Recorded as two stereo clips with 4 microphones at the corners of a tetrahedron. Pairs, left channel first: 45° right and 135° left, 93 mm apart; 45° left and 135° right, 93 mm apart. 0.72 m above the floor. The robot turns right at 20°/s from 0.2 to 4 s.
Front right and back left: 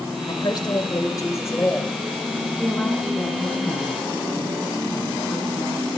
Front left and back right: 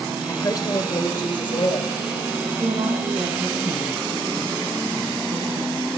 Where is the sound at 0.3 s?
10° right, 2.5 m; by 1.9 s 25° left, 2.5 m.